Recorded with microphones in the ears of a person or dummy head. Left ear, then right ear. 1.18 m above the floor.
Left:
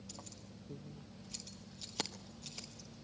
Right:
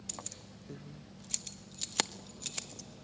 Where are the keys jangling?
50° right (ahead or behind), 1.1 m.